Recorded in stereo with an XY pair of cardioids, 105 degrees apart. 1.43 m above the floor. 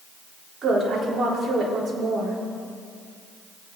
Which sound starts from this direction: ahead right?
A woman speaking, at 0.6 s.